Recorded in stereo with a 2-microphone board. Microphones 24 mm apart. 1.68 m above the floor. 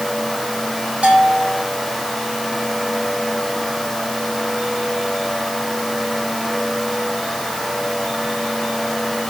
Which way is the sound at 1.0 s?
65° right (ahead or behind).